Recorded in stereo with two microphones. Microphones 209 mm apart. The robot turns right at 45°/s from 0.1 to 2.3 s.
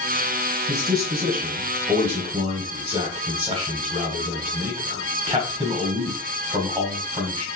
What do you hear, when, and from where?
0.7 s a man speaking: 40° right (ahead or behind), 1.5 m; by 7.5 s 25° right (ahead or behind), 1.5 m